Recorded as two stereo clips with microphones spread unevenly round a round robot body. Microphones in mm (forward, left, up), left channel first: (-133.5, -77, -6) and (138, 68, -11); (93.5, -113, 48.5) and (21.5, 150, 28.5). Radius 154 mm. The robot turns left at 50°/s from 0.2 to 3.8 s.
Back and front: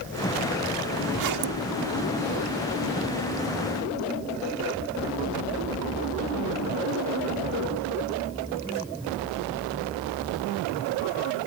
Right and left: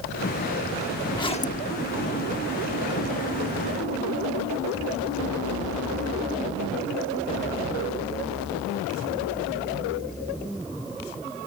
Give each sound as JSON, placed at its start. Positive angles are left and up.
{"t": 1.1, "sound": "a zipper", "azimuth_deg": 5}